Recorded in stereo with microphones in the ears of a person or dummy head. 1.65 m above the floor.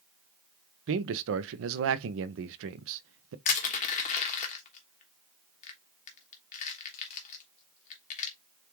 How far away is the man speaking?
About 0.6 m.